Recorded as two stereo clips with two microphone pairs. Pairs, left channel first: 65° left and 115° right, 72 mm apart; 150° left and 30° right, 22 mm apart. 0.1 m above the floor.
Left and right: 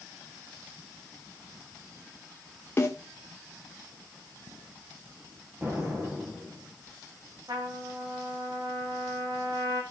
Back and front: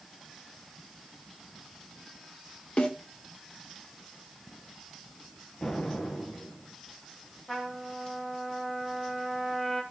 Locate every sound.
2.8 s a snare drum: 125° left, 2 m
5.6 s an explosion: 165° right, 3 m
7.5 s a trumpet: 130° right, 3.5 m